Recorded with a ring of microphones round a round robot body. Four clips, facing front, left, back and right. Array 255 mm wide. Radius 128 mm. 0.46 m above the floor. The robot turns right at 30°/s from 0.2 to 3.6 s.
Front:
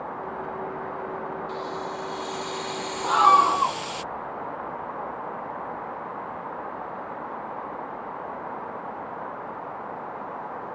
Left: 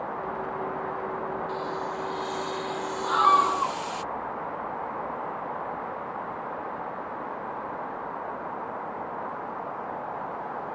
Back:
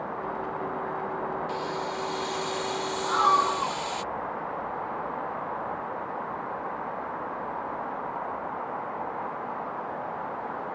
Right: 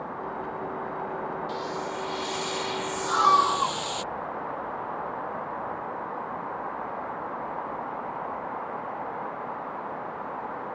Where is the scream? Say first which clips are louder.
Even, front 6 dB; 5° right; by 3.8 s 15° left.